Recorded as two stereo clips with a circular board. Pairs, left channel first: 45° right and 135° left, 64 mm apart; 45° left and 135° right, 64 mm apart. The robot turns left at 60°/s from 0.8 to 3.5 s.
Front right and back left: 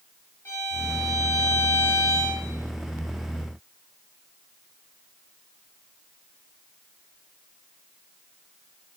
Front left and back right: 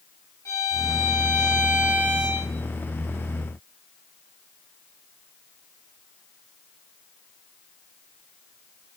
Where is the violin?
5° left, 4.5 m; by 2.5 s 95° right, 4.5 m.